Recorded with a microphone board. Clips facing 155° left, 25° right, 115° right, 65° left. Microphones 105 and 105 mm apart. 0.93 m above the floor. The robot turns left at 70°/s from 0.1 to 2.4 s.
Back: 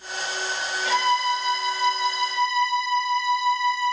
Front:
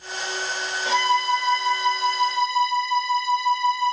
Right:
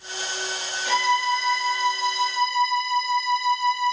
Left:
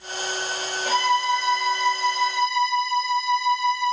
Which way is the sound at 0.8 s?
35° left.